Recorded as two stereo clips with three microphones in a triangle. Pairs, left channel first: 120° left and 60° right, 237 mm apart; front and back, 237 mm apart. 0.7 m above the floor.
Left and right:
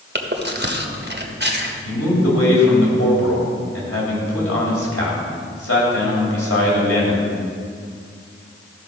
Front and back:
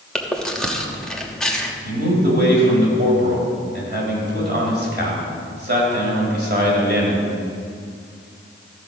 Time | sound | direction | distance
0.1 | chewing | 85° right | 1.1 m
1.9 | a man speaking | 135° left | 3 m